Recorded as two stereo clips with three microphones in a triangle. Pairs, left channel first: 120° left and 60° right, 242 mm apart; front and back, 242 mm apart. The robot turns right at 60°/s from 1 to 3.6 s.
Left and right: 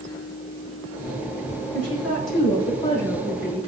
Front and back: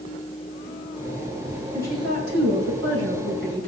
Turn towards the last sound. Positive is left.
turn(degrees=-125)